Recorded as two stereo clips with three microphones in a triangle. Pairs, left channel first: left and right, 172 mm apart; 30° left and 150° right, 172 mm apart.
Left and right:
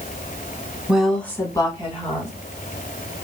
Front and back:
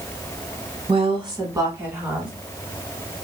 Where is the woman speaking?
170° right, 1.2 m; by 2.3 s 130° left, 1.6 m.